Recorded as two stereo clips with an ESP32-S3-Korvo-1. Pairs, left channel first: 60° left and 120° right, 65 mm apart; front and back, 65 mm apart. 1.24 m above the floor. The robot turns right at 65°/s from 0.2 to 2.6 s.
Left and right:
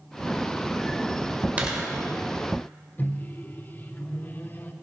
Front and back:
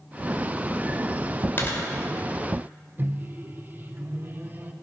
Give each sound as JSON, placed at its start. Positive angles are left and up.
{"t": 1.6, "sound": "a dropped coin", "azimuth_deg": -55, "distance_m": 2.0}
{"t": 3.0, "sound": "a microwave", "azimuth_deg": 120, "distance_m": 0.6}